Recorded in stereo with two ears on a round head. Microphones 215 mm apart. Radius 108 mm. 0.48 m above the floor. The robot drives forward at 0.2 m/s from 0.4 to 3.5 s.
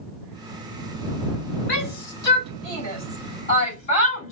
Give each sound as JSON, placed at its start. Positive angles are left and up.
{"t": 1.7, "sound": "a shout", "side_deg": 45, "distance_m": 2.5}